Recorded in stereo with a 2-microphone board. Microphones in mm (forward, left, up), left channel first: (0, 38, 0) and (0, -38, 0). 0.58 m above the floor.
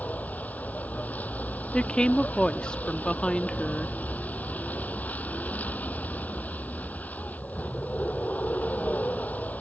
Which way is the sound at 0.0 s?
20° left (ahead or behind).